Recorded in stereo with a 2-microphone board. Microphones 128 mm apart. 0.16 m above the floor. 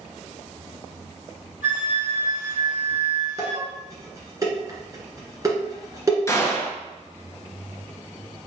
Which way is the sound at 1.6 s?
70° right (ahead or behind).